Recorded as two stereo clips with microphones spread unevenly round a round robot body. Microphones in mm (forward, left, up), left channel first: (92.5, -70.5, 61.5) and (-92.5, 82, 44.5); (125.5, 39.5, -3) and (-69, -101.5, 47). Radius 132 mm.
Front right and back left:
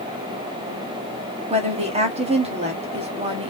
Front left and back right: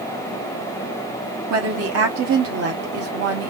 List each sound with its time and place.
1.5 s a woman speaking: 165° right, 1.0 m